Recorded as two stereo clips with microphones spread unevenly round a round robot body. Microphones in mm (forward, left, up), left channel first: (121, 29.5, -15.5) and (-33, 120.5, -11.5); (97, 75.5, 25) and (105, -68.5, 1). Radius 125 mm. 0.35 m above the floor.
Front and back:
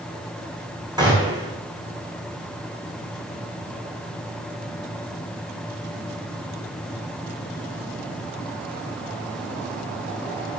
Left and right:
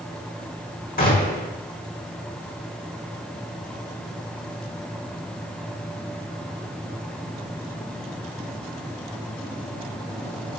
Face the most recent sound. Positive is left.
turn(degrees=80)